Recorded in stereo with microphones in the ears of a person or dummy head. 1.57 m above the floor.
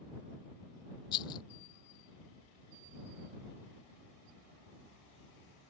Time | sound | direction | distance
1.1 | a rattle | 25° left (ahead or behind) | ?